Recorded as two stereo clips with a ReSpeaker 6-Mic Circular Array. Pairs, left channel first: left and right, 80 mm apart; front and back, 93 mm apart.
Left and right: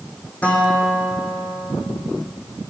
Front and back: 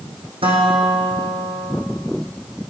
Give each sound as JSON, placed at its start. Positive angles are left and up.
{"t": 0.4, "sound": "a guitar", "azimuth_deg": 160, "distance_m": 5.0}